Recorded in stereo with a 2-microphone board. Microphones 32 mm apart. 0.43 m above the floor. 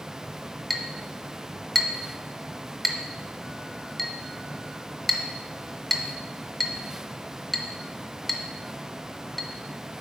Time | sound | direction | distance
0.7 | a clink | centre (ahead or behind) | 0.7 m